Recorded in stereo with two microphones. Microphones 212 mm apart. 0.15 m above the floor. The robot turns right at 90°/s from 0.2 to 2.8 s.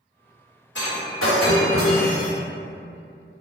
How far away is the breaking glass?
About 1.9 m.